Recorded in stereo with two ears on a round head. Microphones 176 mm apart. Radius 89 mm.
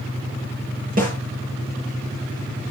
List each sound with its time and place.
1.0 s a snare drum: 45° right (ahead or behind), 8 m